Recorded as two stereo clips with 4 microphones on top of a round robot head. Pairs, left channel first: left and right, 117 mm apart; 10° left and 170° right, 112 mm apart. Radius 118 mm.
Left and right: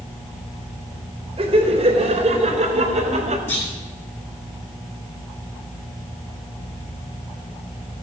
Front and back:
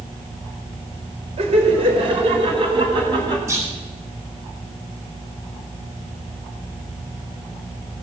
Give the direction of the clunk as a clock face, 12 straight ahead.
8 o'clock.